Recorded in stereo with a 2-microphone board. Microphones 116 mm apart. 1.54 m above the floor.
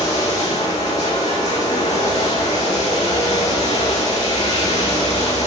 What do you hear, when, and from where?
0.0 s running water: 85° left, 2 m